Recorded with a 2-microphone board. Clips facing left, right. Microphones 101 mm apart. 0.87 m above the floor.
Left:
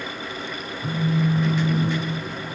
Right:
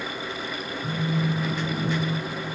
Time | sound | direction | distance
0.8 | a phone buzzing | 25° left (ahead or behind) | 1.1 m